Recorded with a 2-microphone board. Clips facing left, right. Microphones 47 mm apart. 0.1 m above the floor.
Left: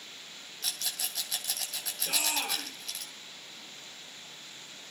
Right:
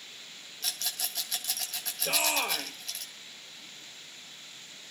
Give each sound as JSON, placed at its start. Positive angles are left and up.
{"t": 0.6, "sound": "a rattle", "side_deg": 0, "distance_m": 1.4}
{"t": 2.0, "sound": "a shout", "side_deg": -30, "distance_m": 1.9}